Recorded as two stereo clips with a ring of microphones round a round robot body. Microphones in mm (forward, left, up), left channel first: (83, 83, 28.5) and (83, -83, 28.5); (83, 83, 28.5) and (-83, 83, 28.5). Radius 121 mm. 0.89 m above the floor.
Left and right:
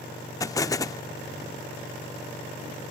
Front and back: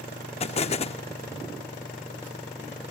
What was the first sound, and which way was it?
An explosion, 30° left.